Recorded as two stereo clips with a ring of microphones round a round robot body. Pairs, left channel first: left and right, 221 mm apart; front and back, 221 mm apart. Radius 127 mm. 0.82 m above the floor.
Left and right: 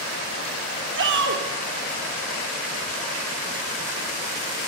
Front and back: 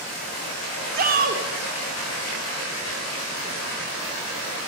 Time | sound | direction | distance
0.9 | a shout | 130° right | 1.9 m